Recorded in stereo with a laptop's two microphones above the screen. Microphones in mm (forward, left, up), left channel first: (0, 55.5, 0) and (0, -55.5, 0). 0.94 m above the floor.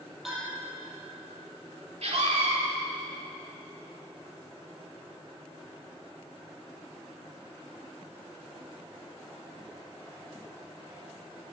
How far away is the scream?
About 3 m.